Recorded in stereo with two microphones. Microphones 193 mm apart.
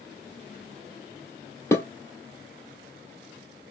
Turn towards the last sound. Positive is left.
turn(degrees=15)  # may be behind; listen again after turning